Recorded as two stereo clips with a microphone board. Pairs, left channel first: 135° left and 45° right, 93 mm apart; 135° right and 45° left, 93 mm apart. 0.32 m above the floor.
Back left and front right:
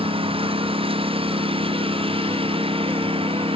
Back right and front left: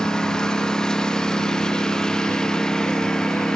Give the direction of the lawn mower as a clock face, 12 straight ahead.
2 o'clock.